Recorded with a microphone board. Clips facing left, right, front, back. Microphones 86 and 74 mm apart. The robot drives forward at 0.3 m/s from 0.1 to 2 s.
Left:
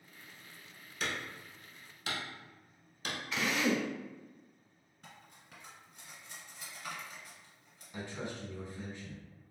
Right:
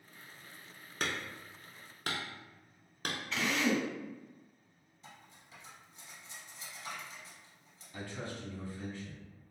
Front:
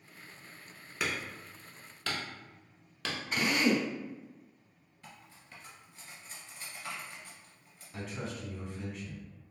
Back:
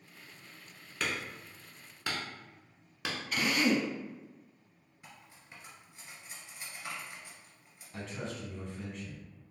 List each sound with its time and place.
1.0 s hammering: 80° right, 0.7 m; by 3.2 s 110° right, 0.7 m
3.3 s a drill: 20° left, 0.6 m
5.0 s cutlery clinking: 115° left, 1.6 m
7.9 s a man speaking: 80° left, 1.1 m